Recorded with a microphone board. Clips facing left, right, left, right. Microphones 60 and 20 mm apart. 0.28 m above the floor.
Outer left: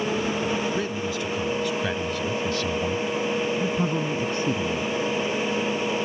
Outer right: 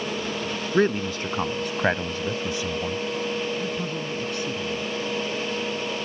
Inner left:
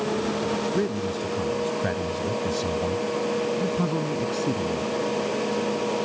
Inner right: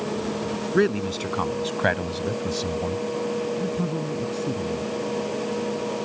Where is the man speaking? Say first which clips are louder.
Outer right 5 dB, inner right 4 dB; 50° right (ahead or behind); by 4.9 s 35° left (ahead or behind).